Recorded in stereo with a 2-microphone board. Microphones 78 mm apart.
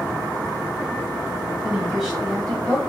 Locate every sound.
1.6 s a woman speaking: 10° right (ahead or behind), 1.8 m; by 2.8 s 15° left (ahead or behind), 1.8 m